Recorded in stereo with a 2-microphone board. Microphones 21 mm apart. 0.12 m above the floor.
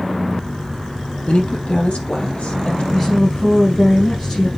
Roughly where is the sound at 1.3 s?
Left.